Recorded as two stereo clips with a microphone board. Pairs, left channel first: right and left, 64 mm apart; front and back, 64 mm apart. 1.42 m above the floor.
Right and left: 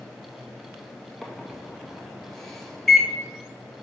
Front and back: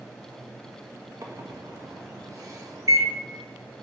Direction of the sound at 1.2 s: 175° right.